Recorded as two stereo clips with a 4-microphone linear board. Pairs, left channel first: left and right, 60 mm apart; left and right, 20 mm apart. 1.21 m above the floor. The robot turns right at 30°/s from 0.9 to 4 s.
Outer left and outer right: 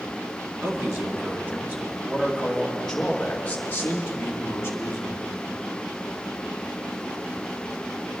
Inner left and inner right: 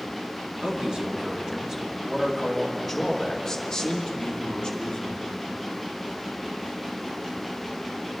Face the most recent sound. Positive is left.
turn(degrees=40)